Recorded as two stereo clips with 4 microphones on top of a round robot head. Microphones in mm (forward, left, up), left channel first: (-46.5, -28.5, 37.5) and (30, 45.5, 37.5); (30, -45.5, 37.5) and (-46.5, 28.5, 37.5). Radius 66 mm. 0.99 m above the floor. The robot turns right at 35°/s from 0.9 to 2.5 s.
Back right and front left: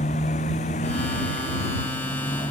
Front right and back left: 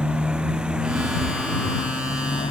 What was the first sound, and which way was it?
A motorcycle, 140° right.